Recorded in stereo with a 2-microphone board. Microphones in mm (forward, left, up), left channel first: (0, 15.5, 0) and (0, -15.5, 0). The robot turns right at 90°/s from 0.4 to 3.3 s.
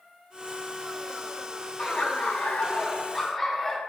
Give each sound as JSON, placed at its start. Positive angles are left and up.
{"t": 1.8, "sound": "laughter", "azimuth_deg": 45, "distance_m": 1.8}